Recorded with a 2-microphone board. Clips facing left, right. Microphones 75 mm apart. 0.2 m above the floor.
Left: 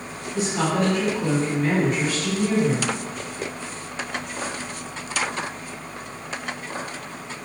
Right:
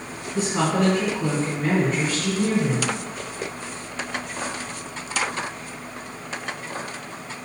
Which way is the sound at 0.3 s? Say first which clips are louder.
Right 1 dB; 30° right (ahead or behind).